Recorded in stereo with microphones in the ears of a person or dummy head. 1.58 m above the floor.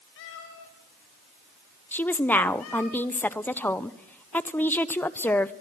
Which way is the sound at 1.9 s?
10° left (ahead or behind).